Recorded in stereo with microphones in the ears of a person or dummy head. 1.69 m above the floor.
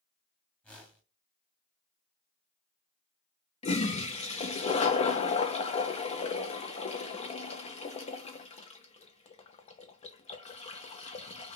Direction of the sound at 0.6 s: 10° left (ahead or behind).